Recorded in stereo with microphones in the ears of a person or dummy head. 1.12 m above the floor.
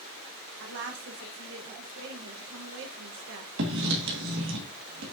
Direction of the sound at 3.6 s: 65° right (ahead or behind).